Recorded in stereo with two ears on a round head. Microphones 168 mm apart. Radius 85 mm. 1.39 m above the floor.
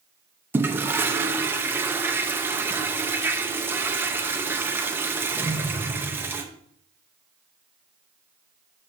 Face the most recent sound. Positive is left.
turn(degrees=-10)  # may be behind; listen again after turning